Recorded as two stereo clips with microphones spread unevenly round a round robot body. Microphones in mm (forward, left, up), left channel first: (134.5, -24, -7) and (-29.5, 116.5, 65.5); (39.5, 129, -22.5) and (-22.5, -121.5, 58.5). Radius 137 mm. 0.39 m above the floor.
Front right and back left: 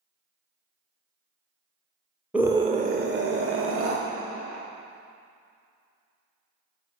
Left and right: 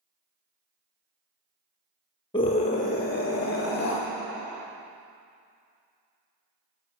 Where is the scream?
35° left, 1.2 m; by 4.0 s 115° left, 2.5 m.